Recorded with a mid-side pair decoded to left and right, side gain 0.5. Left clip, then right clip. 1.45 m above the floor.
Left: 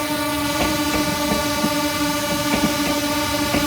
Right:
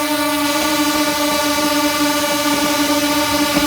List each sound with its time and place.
0.0 s a drone: 35° right